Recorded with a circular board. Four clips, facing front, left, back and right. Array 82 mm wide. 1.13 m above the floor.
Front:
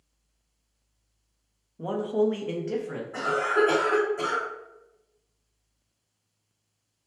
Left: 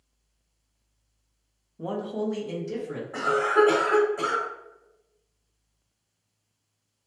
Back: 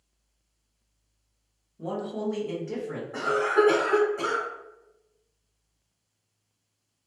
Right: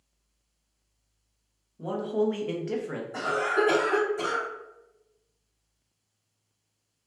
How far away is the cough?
About 1.4 m.